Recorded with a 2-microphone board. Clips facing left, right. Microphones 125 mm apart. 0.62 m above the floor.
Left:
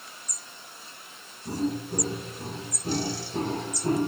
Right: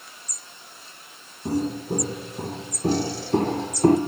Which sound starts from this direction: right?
Footsteps, at 1.4 s.